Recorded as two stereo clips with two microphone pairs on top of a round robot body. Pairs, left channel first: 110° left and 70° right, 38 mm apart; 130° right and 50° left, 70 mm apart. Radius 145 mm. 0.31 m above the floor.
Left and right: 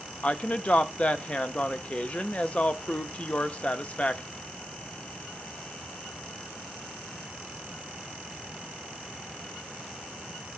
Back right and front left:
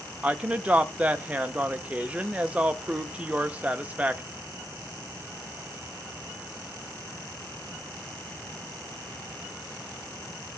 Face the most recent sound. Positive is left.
turn(degrees=105)